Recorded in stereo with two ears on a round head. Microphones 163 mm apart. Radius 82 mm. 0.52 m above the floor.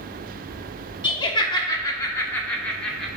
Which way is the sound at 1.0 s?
30° left (ahead or behind).